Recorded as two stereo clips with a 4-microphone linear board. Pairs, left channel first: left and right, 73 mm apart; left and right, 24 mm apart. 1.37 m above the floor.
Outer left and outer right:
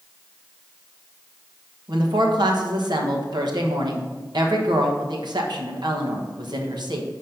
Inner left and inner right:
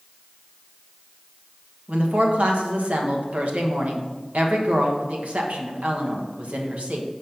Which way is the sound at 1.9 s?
80° right.